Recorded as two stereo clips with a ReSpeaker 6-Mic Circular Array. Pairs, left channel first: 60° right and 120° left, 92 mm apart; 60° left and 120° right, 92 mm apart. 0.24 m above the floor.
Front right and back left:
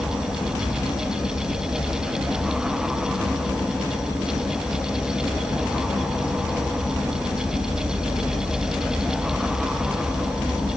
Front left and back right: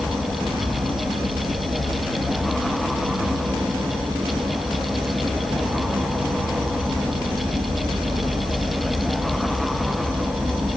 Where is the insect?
105° right, 5.5 m.